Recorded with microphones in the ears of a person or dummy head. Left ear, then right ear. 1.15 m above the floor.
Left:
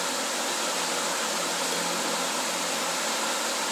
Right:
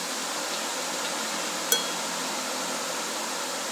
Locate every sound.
1.7 s dishes clattering: 55° right (ahead or behind), 0.9 m